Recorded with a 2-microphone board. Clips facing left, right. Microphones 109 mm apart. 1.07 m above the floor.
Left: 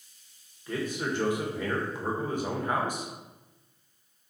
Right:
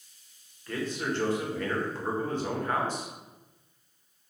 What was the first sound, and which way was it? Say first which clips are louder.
A man speaking: left 1 dB; 15° left (ahead or behind).